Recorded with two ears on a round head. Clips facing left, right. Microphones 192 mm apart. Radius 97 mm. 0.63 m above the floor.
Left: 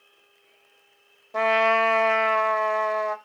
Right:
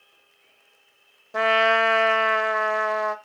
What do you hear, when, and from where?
1.3 s a trumpet: 10° right (ahead or behind), 0.6 m